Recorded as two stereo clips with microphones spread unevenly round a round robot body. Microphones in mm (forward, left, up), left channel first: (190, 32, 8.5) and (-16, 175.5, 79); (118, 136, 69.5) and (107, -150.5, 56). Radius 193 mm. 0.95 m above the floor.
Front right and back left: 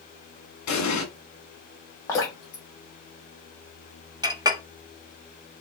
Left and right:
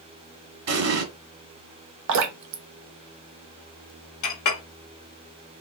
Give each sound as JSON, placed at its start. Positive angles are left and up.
{"t": 0.7, "sound": "an explosion", "azimuth_deg": -60, "distance_m": 1.7}
{"t": 2.1, "sound": "dripping", "azimuth_deg": -105, "distance_m": 0.9}
{"t": 4.2, "sound": "a clink", "azimuth_deg": 65, "distance_m": 1.1}